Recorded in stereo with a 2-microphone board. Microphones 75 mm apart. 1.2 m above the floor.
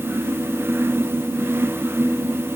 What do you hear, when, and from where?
Only background noise.